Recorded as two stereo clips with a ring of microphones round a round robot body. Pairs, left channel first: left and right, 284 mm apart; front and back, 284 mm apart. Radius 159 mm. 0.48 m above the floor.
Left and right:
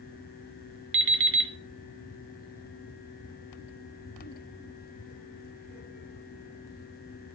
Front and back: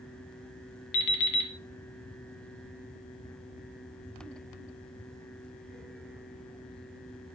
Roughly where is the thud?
No thud in this recording.